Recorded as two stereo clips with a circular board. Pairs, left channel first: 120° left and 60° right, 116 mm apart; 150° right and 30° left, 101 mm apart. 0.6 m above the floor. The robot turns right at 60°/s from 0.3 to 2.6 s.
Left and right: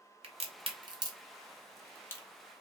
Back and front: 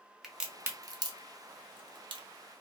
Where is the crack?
60° right, 0.6 m; by 2.2 s 60° left, 0.6 m.